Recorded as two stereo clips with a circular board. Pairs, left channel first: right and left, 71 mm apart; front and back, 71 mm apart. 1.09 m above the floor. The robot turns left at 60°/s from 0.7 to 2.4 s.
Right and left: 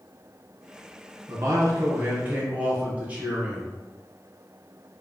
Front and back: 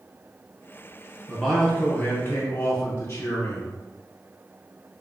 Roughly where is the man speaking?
Left.